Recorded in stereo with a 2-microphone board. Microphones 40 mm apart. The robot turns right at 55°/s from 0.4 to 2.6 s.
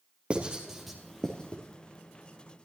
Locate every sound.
0.3 s writing: 30° right (ahead or behind), 3 m; by 1.6 s 30° left (ahead or behind), 3 m